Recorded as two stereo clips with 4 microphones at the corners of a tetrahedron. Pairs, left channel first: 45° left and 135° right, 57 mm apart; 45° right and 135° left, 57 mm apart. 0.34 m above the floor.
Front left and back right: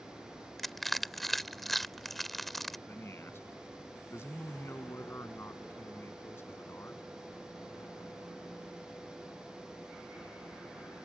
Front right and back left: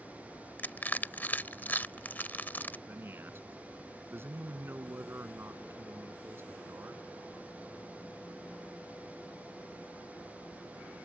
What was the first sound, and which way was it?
Crushing, 35° right.